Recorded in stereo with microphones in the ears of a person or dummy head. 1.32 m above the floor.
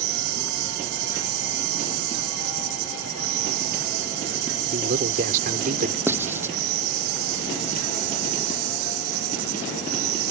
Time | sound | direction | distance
0.0 | an insect | 80° right | ?
4.7 | a man speaking | 45° right (ahead or behind) | ?
6.1 | writing | 10° right (ahead or behind) | ?